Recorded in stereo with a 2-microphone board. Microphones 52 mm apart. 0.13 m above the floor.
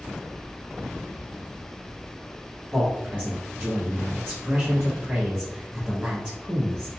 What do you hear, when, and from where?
2.7 s a man speaking: 20° right (ahead or behind), 1.2 m